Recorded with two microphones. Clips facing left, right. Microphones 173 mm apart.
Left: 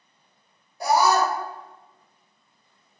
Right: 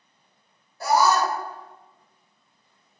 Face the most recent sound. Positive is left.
turn(degrees=15)  # may be behind; listen again after turning